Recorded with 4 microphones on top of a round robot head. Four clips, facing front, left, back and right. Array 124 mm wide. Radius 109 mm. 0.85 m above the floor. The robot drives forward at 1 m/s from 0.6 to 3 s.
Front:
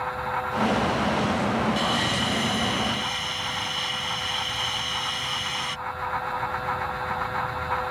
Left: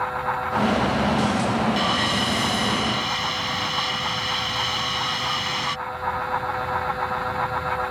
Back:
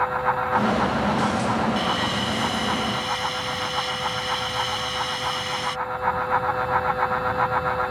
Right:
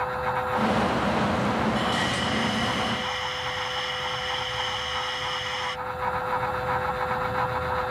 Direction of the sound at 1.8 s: 75° left.